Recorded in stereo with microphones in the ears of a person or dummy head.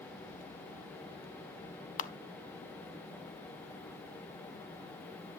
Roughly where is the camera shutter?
Left.